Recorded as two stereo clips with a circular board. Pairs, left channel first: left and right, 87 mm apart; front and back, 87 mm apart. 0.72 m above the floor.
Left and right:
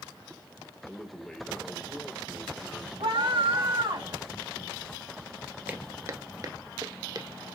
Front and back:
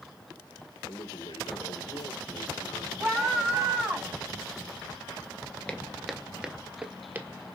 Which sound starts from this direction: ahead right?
Footsteps, at 5.7 s.